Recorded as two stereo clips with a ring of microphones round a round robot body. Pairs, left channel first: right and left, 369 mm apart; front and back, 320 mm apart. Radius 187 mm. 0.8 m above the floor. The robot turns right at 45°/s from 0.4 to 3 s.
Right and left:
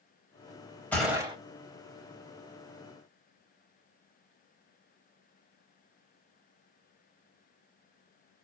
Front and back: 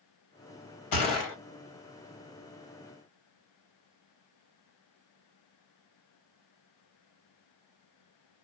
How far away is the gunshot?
About 1.2 m.